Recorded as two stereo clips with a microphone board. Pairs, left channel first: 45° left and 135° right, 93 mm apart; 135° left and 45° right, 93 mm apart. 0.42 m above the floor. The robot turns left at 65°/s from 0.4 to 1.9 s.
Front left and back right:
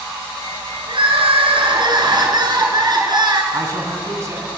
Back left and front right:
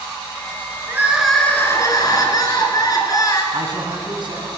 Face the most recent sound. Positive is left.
turn(degrees=-80)